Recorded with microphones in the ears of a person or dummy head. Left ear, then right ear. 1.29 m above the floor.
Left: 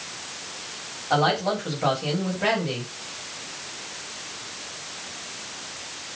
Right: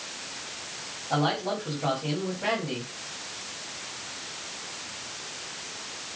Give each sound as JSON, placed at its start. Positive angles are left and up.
{"t": 1.1, "sound": "a man speaking", "side_deg": 70, "distance_m": 5.0}